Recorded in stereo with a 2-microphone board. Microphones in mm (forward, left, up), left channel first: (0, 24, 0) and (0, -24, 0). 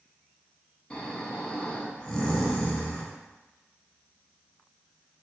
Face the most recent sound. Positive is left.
turn(degrees=20)  # may be behind; listen again after turning